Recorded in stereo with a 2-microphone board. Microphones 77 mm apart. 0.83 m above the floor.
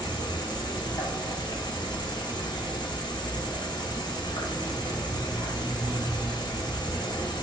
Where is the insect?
75° left (ahead or behind), 0.8 m.